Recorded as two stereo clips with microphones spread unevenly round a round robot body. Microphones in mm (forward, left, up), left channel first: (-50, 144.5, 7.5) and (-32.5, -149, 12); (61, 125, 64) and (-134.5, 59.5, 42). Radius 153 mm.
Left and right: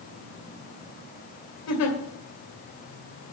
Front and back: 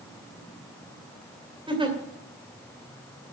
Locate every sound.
1.7 s a giggle: 130° left, 2.5 m